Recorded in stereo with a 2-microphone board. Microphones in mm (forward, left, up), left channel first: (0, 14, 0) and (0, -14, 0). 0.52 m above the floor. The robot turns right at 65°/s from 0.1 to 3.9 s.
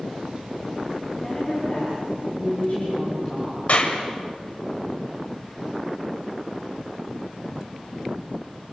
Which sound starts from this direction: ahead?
A woman speaking, at 1.2 s.